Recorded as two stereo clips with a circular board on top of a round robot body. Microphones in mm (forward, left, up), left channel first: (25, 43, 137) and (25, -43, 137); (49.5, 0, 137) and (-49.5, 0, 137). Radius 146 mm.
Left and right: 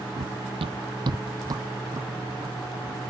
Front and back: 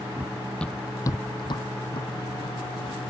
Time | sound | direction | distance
0.2 | running footsteps | 110° right | ?